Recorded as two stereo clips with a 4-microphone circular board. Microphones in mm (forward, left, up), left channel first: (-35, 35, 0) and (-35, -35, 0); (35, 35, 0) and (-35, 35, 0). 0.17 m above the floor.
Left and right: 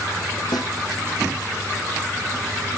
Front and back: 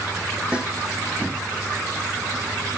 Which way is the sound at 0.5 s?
105° left.